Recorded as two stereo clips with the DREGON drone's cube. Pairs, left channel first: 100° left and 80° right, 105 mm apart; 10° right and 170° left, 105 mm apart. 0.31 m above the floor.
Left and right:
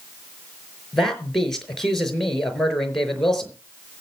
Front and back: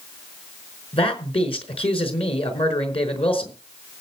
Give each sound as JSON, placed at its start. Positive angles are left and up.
{"t": 0.9, "sound": "a man speaking", "azimuth_deg": 15, "distance_m": 4.5}